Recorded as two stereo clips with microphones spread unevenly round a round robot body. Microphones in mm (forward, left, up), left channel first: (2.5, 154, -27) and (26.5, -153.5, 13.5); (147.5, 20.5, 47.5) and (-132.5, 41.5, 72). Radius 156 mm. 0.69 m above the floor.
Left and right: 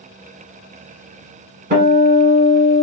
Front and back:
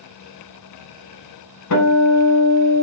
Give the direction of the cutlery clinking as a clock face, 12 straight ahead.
No cutlery clinking in this recording.